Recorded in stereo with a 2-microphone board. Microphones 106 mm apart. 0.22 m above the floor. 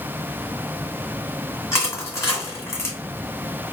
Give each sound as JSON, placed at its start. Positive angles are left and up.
{"t": 1.7, "sound": "crushing", "side_deg": 25, "distance_m": 2.0}